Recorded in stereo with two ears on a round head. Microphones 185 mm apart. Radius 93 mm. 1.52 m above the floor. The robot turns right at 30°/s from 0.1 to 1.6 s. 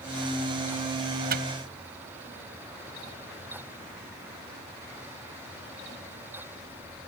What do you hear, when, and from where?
1.3 s a microwave: 50° right (ahead or behind); by 1.5 s 55° right (ahead or behind)